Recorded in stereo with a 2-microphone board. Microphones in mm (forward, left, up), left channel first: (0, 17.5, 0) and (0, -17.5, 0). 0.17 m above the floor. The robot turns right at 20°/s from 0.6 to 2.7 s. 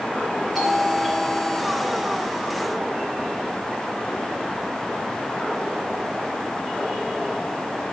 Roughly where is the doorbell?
Behind.